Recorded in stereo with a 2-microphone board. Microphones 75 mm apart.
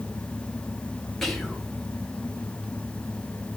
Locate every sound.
1.2 s whispering: centre (ahead or behind), 0.7 m